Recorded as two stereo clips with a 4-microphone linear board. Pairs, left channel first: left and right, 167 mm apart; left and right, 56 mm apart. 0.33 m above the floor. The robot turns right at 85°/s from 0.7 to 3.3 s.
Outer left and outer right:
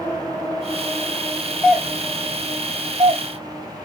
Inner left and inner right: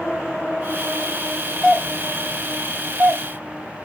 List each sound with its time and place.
1.6 s a doorbell: 5° left (ahead or behind), 1.8 m; by 3.2 s 20° right (ahead or behind), 1.8 m